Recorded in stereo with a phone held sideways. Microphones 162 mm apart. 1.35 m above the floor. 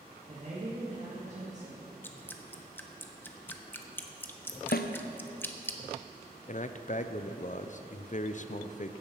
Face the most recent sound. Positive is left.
turn(degrees=50)  # may be behind; listen again after turning